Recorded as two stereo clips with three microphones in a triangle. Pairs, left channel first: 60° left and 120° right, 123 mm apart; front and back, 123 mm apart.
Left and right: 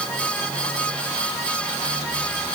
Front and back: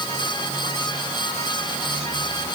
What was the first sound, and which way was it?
Only background noise.